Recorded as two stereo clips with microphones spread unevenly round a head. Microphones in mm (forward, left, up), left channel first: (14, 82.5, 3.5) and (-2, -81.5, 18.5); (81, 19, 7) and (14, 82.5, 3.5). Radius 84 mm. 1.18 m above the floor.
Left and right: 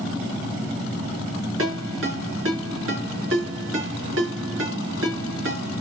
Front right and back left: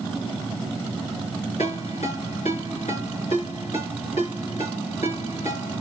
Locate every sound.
1.6 s a ringtone: 95° right, 6.5 m